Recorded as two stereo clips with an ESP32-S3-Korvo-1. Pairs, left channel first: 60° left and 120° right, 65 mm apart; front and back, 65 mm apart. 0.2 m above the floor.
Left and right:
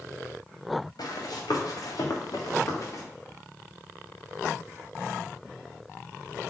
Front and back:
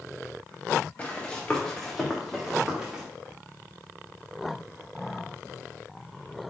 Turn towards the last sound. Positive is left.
turn(degrees=105)